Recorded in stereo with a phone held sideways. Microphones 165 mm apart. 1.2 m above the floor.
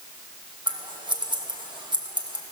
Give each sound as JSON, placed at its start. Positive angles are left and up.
{"t": 0.7, "sound": "scissors", "side_deg": -25, "distance_m": 1.3}